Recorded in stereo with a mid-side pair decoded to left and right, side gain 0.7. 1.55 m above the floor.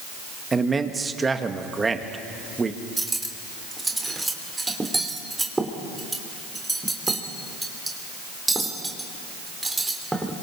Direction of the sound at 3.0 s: 10° right.